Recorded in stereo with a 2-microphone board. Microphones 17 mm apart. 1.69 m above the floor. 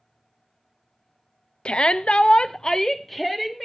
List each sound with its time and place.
1.6 s a shout: 65° left (ahead or behind), 0.6 m; by 3.6 s 10° left (ahead or behind), 1.0 m